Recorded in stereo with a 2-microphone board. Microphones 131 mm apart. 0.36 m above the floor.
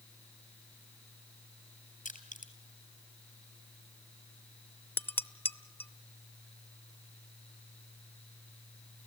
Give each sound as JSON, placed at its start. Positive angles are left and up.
{"t": 2.0, "sound": "crushing", "side_deg": 75, "distance_m": 2.5}
{"t": 5.0, "sound": "dishes clattering", "side_deg": 15, "distance_m": 0.7}